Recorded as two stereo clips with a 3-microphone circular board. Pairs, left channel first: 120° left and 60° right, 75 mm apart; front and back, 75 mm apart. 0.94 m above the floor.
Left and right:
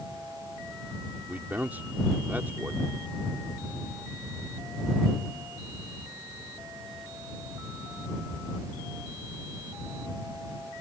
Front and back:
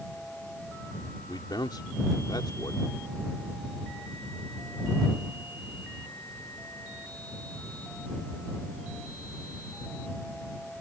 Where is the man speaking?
5° left.